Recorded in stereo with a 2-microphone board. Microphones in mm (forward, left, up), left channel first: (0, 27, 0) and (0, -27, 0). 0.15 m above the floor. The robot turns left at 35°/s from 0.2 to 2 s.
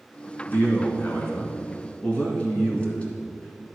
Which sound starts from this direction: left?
A man speaking, at 0.5 s.